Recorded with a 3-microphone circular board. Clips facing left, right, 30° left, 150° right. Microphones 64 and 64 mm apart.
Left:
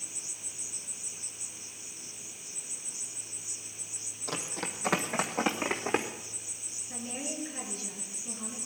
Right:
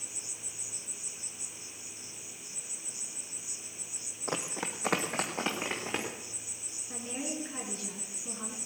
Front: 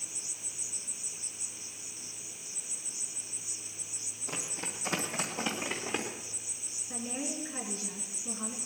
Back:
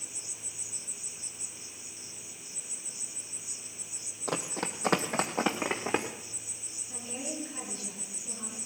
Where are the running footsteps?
150° right, 1.5 m; by 6.1 s 160° left, 2.5 m.